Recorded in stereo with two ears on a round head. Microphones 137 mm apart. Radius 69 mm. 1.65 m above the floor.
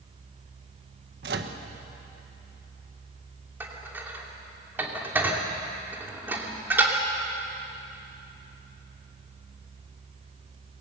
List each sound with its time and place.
1.2 s a microwave: 70° right (ahead or behind), 1.5 m
3.6 s dishes clattering: 15° right (ahead or behind), 2.5 m